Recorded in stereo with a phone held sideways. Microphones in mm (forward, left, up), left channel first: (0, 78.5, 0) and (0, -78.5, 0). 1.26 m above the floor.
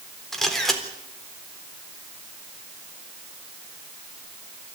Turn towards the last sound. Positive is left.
turn(degrees=5)  # may be behind; listen again after turning